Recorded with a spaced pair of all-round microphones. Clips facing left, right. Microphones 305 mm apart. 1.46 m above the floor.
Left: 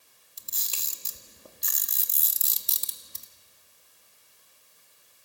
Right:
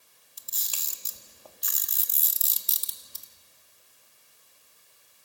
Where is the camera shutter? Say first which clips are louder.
Left 2 dB; 30° left (ahead or behind), 1.8 m.